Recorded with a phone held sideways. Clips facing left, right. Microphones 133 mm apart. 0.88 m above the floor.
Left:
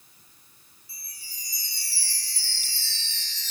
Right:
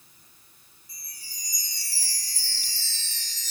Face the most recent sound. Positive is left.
turn(degrees=-45)  # may be behind; listen again after turning